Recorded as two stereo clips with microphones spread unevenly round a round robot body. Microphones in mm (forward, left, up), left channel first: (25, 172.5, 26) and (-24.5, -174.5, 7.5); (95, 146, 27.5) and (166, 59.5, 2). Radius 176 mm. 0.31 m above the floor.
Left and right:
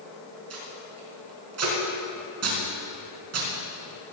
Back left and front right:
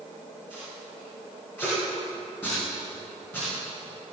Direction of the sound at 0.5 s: 145° right.